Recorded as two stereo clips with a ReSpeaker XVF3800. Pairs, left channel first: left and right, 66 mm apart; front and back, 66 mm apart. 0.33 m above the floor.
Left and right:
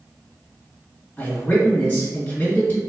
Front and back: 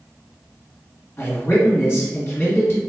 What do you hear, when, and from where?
1.2 s a man speaking: 40° left, 1.6 m